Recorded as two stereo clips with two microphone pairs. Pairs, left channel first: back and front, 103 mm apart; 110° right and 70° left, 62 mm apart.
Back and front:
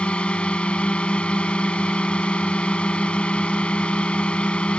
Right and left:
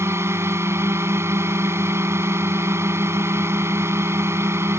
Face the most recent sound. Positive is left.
turn(degrees=100)